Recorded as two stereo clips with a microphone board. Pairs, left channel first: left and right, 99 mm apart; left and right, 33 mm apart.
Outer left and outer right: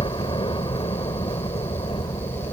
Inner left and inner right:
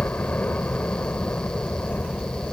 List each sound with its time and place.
0.0 s a helicopter: 55° left (ahead or behind)